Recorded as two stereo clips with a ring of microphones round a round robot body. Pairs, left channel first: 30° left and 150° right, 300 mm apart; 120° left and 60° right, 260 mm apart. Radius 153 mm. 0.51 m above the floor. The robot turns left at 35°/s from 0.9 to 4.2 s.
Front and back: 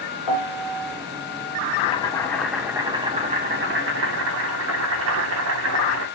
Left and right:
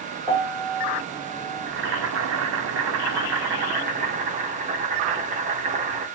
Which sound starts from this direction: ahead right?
Boiling, at 1.7 s.